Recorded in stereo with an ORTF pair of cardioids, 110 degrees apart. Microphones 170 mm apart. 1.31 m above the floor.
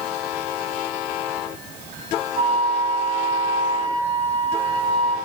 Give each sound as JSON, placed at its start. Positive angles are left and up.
{"t": 2.4, "sound": "a flute", "azimuth_deg": -40, "distance_m": 4.5}